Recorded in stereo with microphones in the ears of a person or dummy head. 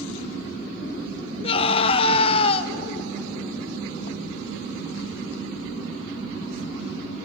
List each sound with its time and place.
1.4 s a scream: 35° left (ahead or behind), 0.9 m